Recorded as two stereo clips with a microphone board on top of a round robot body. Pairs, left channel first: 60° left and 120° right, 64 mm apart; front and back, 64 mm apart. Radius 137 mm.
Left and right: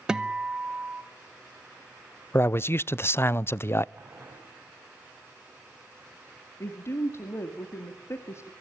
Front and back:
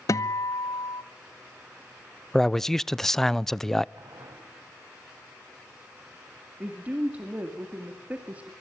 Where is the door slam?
I don't hear a door slam.